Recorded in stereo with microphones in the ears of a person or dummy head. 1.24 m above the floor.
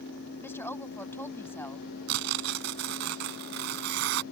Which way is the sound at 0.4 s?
10° left (ahead or behind).